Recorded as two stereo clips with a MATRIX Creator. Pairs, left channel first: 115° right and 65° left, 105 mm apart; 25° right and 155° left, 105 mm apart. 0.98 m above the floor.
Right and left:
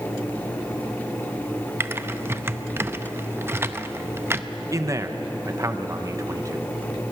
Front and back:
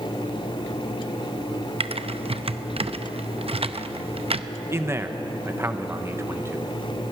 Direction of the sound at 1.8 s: 135° left.